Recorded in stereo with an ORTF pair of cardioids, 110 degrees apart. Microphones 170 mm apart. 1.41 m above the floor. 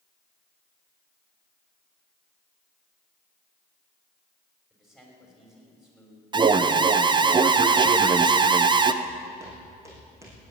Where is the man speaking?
Straight ahead, 6.5 m.